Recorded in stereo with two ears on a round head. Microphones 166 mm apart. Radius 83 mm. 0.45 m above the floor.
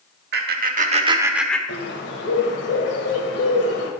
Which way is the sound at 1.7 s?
65° left (ahead or behind).